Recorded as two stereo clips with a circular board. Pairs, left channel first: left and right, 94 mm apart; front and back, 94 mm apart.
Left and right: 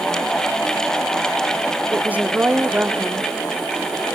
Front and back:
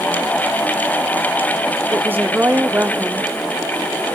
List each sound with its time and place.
1.9 s a woman speaking: 140° right, 0.7 m